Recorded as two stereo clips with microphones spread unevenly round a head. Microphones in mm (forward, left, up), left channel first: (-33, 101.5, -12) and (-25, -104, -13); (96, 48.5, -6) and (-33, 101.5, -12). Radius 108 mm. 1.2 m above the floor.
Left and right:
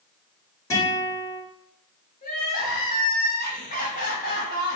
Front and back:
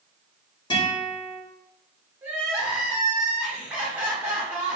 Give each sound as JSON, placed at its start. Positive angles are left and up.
{"t": 0.7, "sound": "a guitar", "azimuth_deg": 20, "distance_m": 1.2}
{"t": 2.2, "sound": "crying", "azimuth_deg": 80, "distance_m": 0.9}